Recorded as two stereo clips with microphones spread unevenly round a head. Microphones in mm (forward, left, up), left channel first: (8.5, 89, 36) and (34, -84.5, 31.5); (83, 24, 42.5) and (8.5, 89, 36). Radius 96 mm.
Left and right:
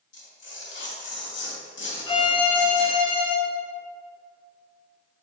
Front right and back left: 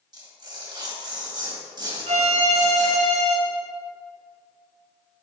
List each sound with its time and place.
0.1 s tearing paper: 95° left, 2.5 m
2.1 s a violin: 160° left, 1.0 m